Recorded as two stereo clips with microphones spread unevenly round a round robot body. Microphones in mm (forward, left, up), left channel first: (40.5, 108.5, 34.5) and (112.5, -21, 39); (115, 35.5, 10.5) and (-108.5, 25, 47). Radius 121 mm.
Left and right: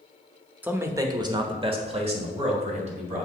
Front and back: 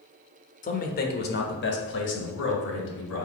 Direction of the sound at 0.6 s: 15° left.